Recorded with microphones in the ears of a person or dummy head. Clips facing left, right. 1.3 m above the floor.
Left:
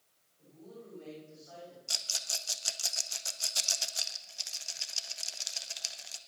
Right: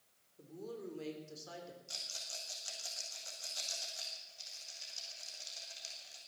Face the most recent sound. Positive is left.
turn(degrees=75)  # may be behind; listen again after turning